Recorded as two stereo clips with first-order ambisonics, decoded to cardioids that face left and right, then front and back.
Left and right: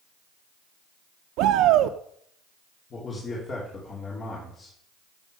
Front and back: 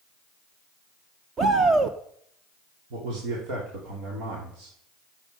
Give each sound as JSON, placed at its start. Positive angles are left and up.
{"t": 1.4, "sound": "a shout", "azimuth_deg": -115, "distance_m": 0.7}
{"t": 2.9, "sound": "a man speaking", "azimuth_deg": 155, "distance_m": 3.5}